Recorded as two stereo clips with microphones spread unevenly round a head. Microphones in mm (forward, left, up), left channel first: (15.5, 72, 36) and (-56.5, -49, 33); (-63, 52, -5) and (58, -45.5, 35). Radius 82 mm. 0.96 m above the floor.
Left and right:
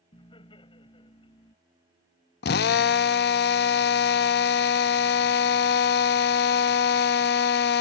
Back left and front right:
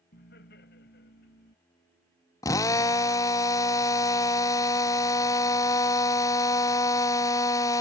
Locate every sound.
0.1 s laughter: 115° left
2.4 s a drill: 65° left